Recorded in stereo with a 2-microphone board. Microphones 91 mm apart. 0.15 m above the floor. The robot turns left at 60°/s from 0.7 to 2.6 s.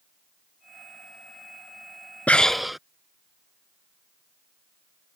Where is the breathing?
15° left (ahead or behind); by 2.8 s centre (ahead or behind).